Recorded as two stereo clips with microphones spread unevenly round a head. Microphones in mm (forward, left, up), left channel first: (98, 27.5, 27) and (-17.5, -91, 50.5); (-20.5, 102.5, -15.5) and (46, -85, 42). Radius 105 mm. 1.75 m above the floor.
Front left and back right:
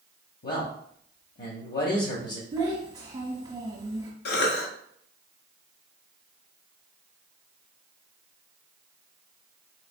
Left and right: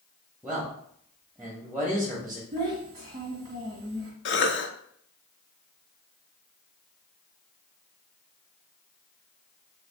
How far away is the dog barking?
No dog barking in this recording.